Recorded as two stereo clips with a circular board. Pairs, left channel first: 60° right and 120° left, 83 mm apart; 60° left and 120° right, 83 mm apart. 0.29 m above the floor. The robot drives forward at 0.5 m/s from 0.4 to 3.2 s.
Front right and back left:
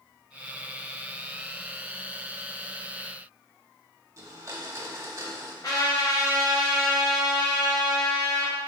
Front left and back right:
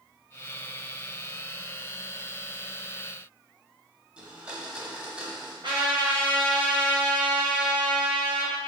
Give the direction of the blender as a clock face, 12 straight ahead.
6 o'clock.